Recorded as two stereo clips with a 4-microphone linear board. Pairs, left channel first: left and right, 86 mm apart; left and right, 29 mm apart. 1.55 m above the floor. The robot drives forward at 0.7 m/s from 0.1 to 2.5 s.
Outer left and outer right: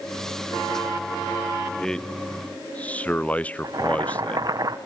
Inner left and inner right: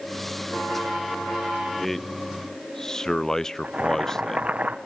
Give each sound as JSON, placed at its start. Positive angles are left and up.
{"t": 1.8, "sound": "a man speaking", "side_deg": 10, "distance_m": 1.0}
{"t": 3.6, "sound": "boiling", "side_deg": -45, "distance_m": 1.5}